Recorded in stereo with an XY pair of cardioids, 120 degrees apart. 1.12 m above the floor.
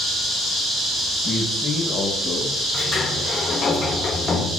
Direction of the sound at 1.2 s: 45° left.